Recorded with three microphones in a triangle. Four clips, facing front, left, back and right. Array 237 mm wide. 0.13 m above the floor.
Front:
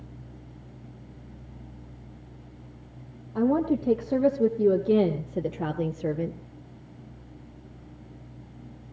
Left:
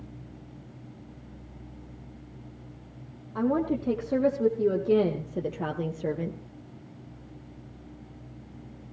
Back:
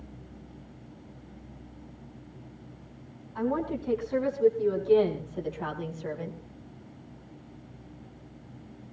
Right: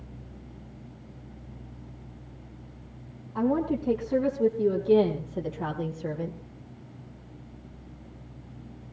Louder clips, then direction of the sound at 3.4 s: Even, front 6 dB; 10° left.